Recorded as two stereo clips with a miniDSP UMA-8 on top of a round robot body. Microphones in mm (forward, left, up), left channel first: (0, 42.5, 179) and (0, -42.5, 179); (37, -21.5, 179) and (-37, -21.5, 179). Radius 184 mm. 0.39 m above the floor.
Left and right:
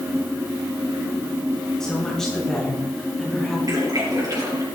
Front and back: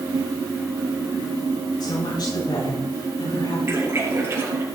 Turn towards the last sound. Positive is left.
turn(degrees=-130)